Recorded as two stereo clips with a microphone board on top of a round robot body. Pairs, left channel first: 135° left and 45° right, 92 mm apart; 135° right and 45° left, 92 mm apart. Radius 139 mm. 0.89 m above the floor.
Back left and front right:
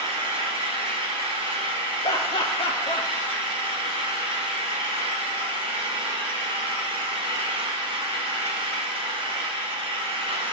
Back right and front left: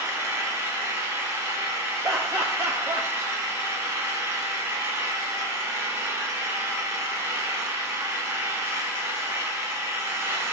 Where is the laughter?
110° left, 1.2 m.